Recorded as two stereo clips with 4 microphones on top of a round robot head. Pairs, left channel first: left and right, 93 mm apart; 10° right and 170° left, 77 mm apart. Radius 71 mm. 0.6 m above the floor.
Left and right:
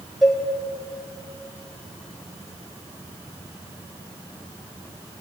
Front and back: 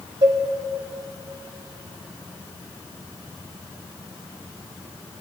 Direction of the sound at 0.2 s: 175° left.